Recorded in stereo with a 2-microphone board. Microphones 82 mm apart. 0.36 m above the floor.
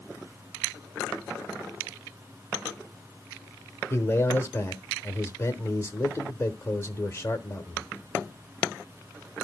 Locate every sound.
3.9 s a man speaking: 30° left (ahead or behind), 1.0 m